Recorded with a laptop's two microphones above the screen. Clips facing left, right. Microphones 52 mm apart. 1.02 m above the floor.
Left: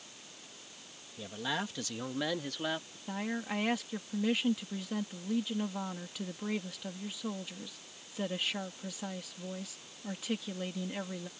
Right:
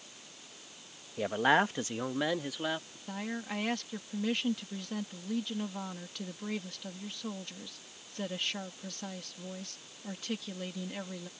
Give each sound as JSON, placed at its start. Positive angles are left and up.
{"t": 1.2, "sound": "a man speaking", "side_deg": -60}
{"t": 3.1, "sound": "a woman speaking", "side_deg": 5}